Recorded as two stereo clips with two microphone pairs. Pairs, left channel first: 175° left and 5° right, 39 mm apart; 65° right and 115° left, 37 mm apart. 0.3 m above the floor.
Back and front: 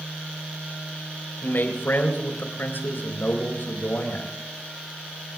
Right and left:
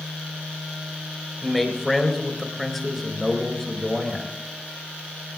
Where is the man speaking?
155° right, 4 m.